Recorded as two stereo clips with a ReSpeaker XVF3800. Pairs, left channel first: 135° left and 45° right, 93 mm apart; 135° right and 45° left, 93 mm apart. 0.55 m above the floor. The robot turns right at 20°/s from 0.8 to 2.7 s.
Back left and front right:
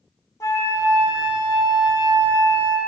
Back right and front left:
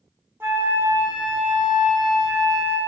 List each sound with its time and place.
0.4 s a flute: 100° left, 0.7 m; by 2.8 s 135° left, 0.7 m